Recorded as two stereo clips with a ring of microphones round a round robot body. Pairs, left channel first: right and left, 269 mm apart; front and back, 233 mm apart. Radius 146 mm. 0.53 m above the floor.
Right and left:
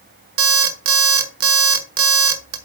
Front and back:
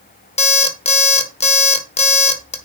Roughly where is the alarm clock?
Ahead left.